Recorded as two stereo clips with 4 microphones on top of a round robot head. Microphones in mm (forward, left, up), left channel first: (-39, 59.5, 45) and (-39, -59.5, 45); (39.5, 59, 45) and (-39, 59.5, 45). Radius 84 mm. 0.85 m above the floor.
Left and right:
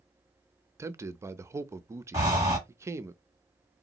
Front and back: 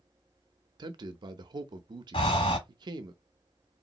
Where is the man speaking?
155° right, 0.6 m.